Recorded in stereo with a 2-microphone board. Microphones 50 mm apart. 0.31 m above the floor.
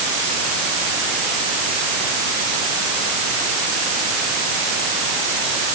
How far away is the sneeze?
I don't hear a sneeze.